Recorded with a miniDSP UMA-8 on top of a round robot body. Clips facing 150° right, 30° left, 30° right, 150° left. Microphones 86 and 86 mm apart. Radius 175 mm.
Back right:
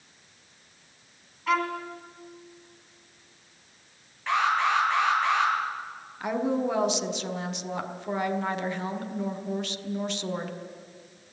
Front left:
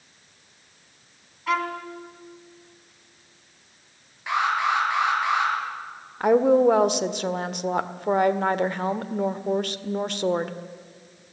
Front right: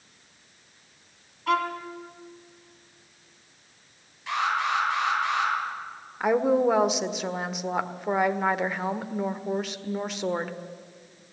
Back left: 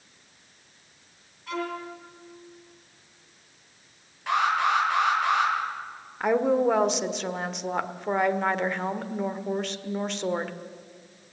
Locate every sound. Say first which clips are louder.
1.5 s a violin: front left 1 dB, front right 6 dB; 55° right, 2.5 m
4.3 s an alarm: front left 1 dB, back left 3 dB; 110° left, 8.5 m
6.2 s a woman speaking: front left 10 dB, front right 1 dB; 55° left, 1.8 m